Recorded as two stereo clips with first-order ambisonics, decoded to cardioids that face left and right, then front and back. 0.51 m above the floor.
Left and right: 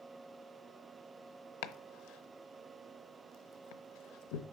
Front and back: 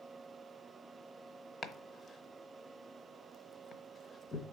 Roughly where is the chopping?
Left.